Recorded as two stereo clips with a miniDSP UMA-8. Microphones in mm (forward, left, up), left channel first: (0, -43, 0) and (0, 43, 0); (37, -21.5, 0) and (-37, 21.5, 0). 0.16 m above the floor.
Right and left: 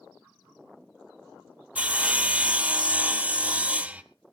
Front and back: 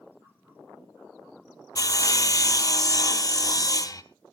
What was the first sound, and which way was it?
Sawing, 15° left.